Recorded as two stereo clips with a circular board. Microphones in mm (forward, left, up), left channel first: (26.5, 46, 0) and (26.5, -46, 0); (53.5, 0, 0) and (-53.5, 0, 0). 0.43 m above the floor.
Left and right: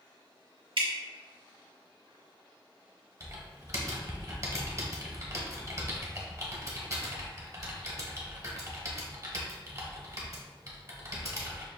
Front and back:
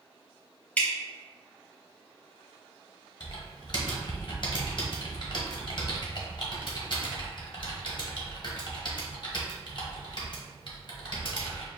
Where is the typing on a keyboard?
40° right, 1.0 m.